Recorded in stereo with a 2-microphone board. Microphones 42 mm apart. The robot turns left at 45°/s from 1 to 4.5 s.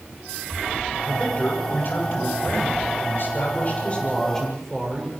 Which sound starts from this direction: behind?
A man speaking, at 1.1 s.